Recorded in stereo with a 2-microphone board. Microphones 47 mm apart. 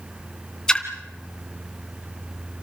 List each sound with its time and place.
0.7 s a splash: 15° left (ahead or behind), 2 m